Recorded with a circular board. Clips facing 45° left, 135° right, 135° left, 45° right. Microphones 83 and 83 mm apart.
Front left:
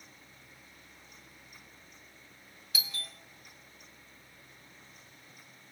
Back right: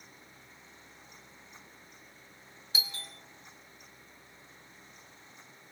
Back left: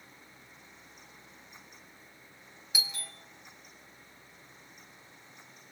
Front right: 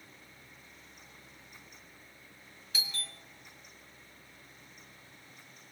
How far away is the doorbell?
About 1.5 m.